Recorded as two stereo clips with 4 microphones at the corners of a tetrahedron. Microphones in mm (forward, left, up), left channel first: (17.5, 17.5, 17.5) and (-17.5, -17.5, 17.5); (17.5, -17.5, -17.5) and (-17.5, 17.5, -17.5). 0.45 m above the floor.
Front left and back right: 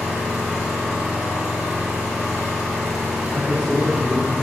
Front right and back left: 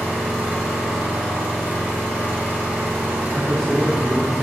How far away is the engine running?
About 1.3 m.